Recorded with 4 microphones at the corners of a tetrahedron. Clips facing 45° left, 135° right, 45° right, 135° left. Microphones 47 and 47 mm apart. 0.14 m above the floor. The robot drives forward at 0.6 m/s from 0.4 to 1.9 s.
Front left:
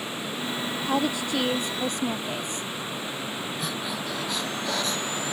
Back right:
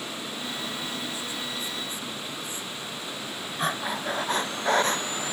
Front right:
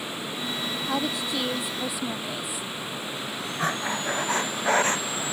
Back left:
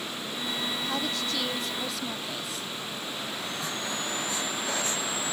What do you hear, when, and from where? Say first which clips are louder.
0.8 s a woman speaking: front left 8 dB, front right 3 dB; 25° left; by 2.7 s 30° left
3.6 s breathing: back right 2 dB, front right 9 dB; 85° right